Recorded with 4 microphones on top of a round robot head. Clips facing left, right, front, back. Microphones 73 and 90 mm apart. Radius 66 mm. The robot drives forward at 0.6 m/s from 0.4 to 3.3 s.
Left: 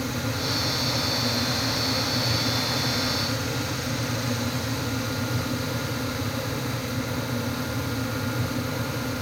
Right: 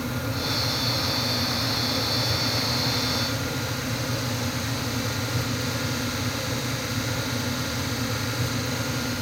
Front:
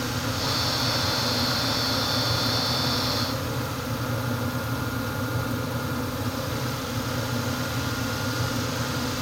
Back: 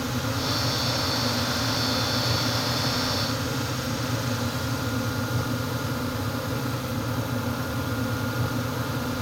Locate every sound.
Only background noise.